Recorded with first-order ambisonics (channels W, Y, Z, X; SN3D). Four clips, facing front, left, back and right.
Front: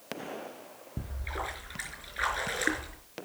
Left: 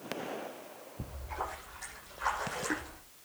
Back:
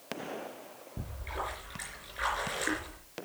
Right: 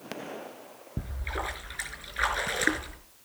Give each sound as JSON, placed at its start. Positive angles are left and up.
{"t": 1.0, "sound": "a splash", "azimuth_deg": -75, "distance_m": 4.5}